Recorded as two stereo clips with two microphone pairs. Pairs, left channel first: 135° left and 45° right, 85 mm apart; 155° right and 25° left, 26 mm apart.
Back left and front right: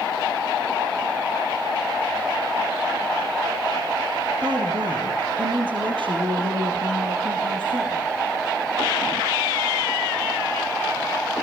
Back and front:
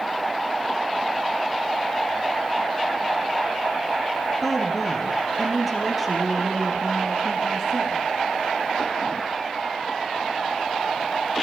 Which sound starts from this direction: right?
A woman speaking, at 4.4 s.